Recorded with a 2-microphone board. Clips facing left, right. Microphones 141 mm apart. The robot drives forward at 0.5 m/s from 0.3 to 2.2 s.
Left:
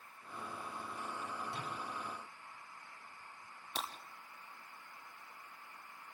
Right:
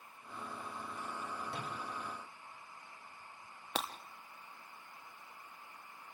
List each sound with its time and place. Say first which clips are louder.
1.5 s a microwave: right 1 dB; 65° right (ahead or behind), 5 m
3.8 s breaking glass: right 4 dB; 75° right (ahead or behind), 2 m